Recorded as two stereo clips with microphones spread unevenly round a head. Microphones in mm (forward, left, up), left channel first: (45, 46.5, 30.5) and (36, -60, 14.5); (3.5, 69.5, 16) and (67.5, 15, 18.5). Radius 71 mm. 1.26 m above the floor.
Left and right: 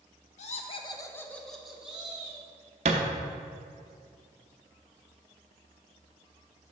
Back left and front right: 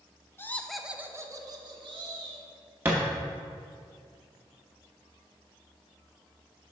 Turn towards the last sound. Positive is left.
turn(degrees=-105)